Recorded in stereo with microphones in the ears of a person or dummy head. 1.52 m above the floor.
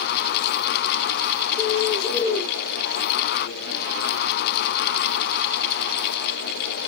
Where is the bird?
15° left (ahead or behind), 1.7 m.